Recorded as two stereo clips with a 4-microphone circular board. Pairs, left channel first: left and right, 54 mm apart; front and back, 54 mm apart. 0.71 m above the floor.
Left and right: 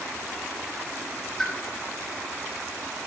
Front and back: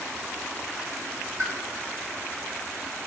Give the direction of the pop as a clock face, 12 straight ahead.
6 o'clock.